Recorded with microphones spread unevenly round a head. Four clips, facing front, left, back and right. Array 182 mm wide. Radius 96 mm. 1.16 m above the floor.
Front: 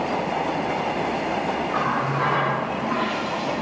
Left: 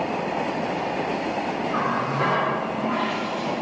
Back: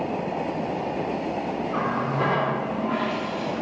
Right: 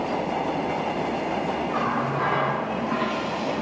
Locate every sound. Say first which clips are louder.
1.7 s a running tap: left 2 dB, even; 145° left, 1.9 m